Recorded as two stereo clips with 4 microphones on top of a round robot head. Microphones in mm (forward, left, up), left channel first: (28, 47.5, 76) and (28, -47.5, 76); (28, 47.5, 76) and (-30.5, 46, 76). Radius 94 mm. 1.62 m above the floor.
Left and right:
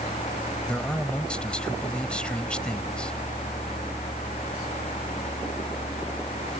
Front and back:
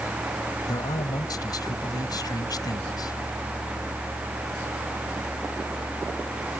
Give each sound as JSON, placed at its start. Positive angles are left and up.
{"t": 0.7, "sound": "a man speaking", "azimuth_deg": 10}